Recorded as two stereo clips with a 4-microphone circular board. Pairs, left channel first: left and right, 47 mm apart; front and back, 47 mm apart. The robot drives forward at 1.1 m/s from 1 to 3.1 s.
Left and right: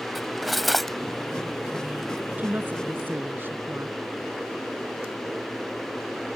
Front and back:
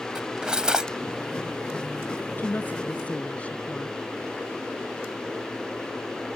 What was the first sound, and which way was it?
Cutlery clinking, straight behind.